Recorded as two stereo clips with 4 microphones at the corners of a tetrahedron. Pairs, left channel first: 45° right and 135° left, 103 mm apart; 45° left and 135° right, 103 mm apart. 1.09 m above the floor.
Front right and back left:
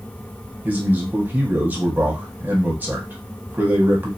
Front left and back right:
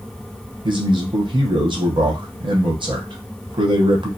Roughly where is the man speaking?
Behind right.